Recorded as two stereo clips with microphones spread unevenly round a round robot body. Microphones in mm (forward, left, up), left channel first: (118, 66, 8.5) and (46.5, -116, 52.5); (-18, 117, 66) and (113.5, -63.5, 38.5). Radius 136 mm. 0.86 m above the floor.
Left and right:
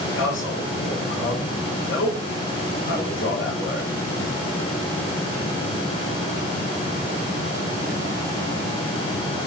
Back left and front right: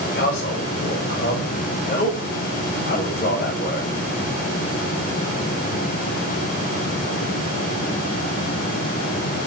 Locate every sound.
0.1 s a man speaking: 80° left, 4 m